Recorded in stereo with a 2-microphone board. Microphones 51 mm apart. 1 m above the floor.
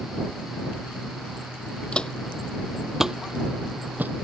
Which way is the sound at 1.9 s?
20° left (ahead or behind).